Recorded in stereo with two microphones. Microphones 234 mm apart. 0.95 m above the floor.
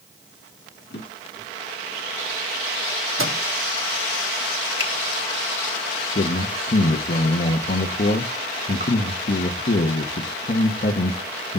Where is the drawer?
50° left (ahead or behind), 5 m.